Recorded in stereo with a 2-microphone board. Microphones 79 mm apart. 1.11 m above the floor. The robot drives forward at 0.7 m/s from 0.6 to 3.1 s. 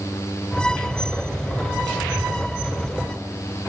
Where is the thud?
I don't hear a thud.